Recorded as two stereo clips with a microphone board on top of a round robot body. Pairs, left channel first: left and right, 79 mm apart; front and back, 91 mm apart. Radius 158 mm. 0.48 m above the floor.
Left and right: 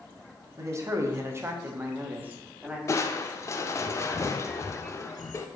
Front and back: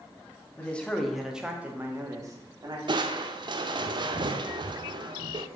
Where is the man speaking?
65° right, 1.6 m; by 2.8 s 160° right, 1.9 m.